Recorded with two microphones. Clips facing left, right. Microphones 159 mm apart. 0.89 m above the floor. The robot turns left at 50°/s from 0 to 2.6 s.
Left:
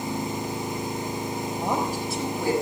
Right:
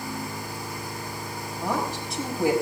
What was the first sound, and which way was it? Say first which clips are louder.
A woman speaking: even; 25° left.